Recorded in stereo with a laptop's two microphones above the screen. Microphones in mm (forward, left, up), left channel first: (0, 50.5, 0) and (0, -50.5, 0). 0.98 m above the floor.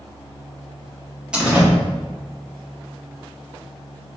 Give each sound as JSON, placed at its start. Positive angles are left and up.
{"t": 1.3, "sound": "a door slam", "side_deg": -10, "distance_m": 1.1}